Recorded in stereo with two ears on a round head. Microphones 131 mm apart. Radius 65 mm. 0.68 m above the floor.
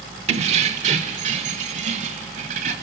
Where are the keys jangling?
45° right (ahead or behind), 0.9 m; by 2.7 s 55° right (ahead or behind), 3 m.